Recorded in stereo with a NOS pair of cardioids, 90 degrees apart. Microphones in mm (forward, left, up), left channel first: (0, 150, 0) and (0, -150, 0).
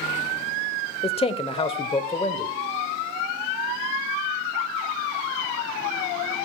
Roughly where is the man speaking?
Ahead.